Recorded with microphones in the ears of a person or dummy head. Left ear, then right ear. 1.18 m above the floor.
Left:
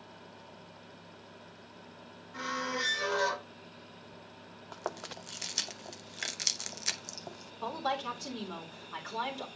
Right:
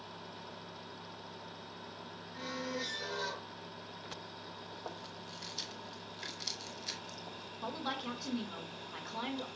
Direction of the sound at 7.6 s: 60° left (ahead or behind).